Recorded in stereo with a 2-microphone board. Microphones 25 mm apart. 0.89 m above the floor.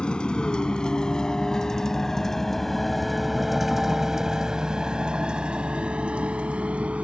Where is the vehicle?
40° left (ahead or behind); by 7.0 s 60° right (ahead or behind).